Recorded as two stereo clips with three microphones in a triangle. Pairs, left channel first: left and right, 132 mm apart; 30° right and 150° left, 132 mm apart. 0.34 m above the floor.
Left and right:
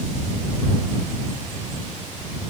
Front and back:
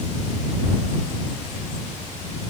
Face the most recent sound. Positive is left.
No sound to turn to.